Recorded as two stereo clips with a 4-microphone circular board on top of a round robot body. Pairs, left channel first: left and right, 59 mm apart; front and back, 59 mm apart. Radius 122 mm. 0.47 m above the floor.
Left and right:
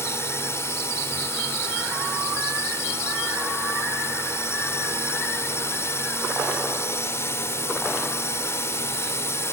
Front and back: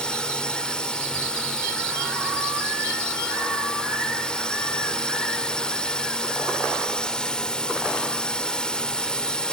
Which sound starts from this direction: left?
A drone, at 0.0 s.